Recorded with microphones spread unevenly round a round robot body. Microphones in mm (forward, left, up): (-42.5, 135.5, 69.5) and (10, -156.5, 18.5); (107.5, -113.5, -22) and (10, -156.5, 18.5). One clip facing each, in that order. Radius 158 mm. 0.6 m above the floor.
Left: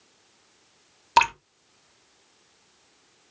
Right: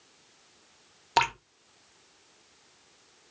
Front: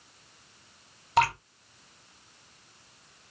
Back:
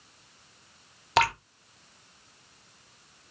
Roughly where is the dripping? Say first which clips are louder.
Left 4 dB, even; behind.